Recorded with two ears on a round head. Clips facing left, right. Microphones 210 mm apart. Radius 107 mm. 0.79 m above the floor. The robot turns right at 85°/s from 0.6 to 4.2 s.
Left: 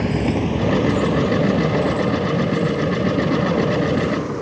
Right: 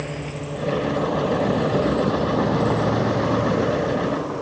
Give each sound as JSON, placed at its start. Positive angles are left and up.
{"t": 0.0, "sound": "a vehicle", "side_deg": 65}